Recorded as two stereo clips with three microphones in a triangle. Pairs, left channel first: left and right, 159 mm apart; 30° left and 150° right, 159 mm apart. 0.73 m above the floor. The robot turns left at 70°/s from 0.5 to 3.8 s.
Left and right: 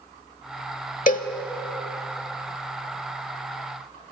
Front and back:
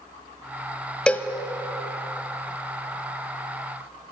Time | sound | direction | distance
1.1 | a cowbell | 110° left | 0.8 m